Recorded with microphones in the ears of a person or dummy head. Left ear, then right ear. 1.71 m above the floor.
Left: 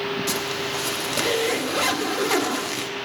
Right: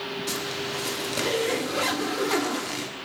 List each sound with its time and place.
0.3 s a zipper: 10° left (ahead or behind), 0.8 m